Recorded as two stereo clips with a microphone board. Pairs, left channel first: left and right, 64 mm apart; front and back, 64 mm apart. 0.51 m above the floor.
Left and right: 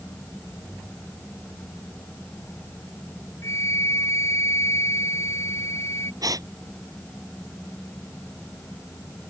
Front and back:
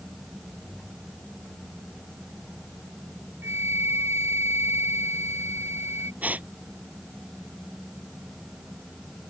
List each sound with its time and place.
3.4 s a flute: 135° left
6.2 s a gasp: 115° right